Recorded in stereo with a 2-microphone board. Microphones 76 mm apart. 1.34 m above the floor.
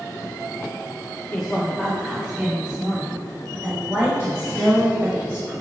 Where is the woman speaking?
15° left (ahead or behind), 1.2 m; by 5.5 s 40° right (ahead or behind), 5 m.